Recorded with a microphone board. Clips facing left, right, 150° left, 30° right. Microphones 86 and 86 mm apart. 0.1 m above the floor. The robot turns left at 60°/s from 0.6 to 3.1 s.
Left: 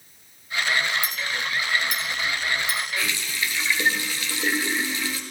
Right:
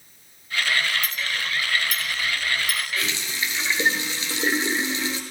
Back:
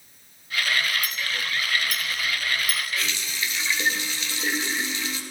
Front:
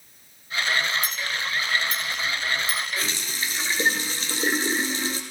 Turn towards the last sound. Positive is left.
turn(degrees=-40)